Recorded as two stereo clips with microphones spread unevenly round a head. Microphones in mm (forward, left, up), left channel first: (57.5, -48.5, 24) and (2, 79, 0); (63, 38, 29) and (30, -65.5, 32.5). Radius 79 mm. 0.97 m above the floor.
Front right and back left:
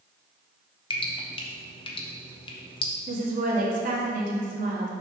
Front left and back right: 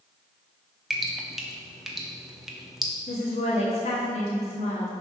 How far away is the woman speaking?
About 1.8 m.